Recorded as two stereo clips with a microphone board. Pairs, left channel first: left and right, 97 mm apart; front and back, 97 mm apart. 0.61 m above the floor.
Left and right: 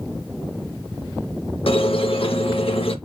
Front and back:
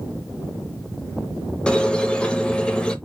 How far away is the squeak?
About 0.6 m.